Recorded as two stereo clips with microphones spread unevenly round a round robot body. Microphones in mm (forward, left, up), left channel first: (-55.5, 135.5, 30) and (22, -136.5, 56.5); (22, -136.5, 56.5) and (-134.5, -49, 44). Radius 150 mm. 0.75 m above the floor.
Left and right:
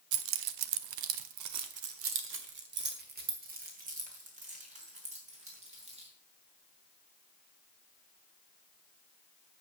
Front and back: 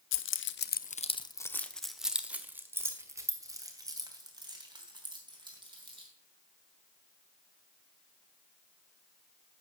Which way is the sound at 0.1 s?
35° right.